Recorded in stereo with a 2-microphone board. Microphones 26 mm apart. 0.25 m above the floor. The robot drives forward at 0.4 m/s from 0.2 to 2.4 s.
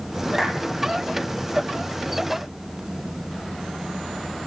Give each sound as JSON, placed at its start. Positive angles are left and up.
{"t": 0.4, "sound": "a clap", "side_deg": -20, "distance_m": 5.0}